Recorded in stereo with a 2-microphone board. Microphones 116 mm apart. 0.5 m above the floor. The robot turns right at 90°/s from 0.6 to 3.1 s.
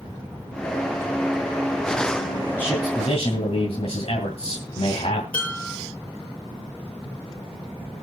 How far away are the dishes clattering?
About 9.5 m.